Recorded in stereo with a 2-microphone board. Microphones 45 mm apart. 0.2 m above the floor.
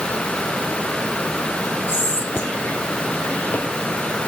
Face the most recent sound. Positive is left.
turn(degrees=50)  # may be behind; listen again after turning